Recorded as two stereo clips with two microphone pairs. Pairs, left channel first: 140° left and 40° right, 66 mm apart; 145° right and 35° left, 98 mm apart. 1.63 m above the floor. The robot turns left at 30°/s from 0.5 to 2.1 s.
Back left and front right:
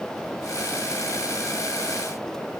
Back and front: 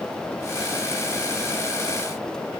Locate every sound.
Only background noise.